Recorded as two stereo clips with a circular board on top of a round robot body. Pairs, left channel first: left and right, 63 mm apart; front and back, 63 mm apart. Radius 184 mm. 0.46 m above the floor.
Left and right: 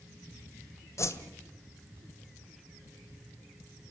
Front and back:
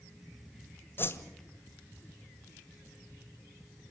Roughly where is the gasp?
I don't hear a gasp.